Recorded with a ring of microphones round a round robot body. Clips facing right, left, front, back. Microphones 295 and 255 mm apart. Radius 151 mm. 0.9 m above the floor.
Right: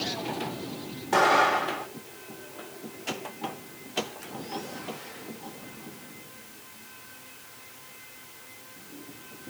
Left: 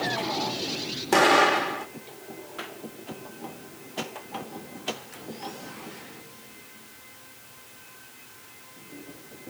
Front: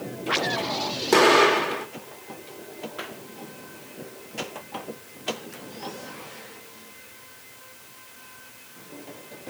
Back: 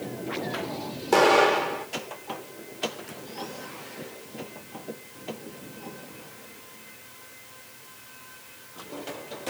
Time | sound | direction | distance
1.1 | an explosion | 65° left | 2.0 m